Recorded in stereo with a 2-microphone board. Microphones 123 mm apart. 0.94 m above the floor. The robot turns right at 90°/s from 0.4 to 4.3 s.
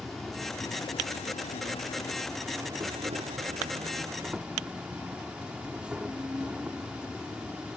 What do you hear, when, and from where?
0.0 s an insect: straight ahead; by 7.8 s 10° right